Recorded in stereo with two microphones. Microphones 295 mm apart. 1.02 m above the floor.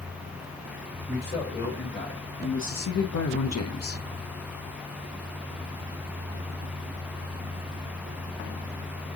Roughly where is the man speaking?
Left.